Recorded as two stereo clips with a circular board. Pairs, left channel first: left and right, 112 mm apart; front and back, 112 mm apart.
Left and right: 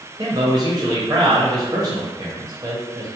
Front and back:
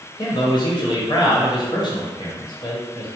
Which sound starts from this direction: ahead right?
A man speaking, at 0.2 s.